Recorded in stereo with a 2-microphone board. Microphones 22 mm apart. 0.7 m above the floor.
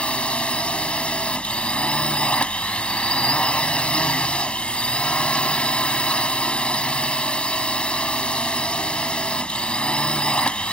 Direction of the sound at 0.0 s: 60° left (ahead or behind).